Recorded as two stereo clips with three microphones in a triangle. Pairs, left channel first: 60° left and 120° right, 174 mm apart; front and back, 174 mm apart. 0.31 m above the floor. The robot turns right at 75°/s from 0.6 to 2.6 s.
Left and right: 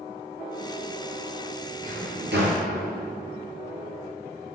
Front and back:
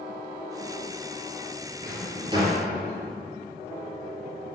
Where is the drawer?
155° right, 2.5 m; by 2.6 s 95° right, 2.5 m.